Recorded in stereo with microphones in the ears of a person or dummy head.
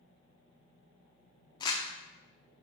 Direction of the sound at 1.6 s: 30° left (ahead or behind).